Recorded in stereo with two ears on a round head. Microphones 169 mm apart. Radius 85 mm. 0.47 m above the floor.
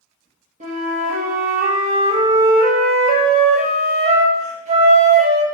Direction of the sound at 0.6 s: 35° right (ahead or behind).